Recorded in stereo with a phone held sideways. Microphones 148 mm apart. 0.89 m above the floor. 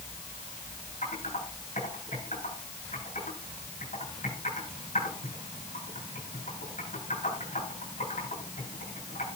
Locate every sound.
1.0 s typing on a keyboard: 55° left (ahead or behind), 8.5 m